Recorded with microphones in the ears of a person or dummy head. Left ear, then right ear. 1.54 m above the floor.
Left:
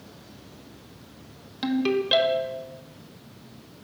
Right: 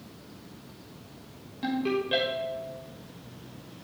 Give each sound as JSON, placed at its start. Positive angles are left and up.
{"t": 1.6, "sound": "a ringtone", "side_deg": 45, "distance_m": 1.2}